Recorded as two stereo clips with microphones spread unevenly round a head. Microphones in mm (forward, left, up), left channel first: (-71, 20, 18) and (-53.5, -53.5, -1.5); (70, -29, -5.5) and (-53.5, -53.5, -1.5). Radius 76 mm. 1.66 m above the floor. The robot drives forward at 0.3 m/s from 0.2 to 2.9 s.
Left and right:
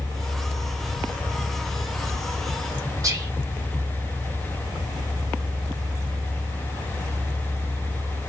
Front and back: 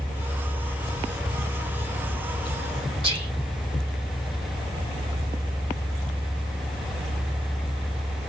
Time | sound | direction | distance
3.0 | whispering | 120° right | 1.3 m